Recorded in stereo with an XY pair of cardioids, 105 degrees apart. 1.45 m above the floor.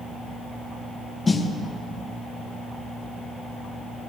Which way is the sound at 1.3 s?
30° left.